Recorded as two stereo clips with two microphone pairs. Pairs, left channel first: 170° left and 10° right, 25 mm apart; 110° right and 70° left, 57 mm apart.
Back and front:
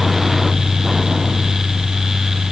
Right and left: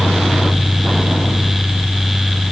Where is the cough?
I don't hear a cough.